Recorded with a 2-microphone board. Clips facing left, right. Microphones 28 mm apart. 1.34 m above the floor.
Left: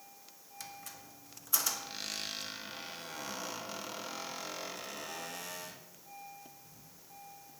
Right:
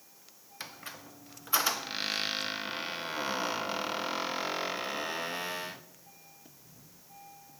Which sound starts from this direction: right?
A squeak, at 0.6 s.